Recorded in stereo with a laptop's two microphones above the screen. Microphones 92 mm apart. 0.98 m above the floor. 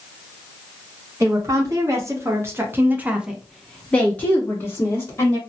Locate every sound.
1.2 s a woman speaking: 35° right (ahead or behind), 1.2 m; by 5.4 s 30° left (ahead or behind), 1.2 m